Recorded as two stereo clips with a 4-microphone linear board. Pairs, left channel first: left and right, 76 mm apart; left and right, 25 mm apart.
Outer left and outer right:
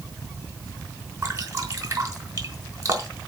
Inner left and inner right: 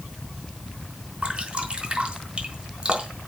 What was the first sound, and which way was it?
Dripping, 45° right (ahead or behind).